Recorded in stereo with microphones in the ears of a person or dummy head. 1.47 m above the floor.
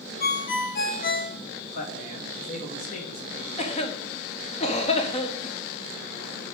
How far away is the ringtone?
About 1.1 m.